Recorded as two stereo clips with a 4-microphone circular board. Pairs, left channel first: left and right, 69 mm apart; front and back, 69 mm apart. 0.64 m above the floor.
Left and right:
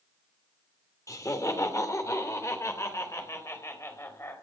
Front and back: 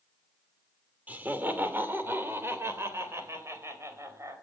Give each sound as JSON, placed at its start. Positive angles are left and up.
{"t": 1.1, "sound": "laughter", "azimuth_deg": 120, "distance_m": 2.5}